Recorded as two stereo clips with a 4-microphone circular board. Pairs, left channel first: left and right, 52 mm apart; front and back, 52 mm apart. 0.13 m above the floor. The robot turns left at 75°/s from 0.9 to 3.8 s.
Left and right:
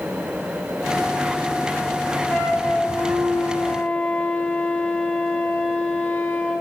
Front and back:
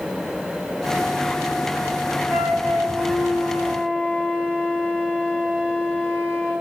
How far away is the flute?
About 1.8 m.